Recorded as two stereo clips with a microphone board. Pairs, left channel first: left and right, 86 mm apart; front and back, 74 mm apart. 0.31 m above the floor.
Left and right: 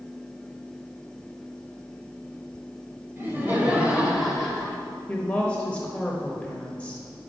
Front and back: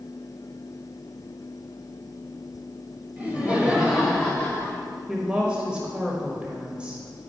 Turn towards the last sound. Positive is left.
turn(degrees=135)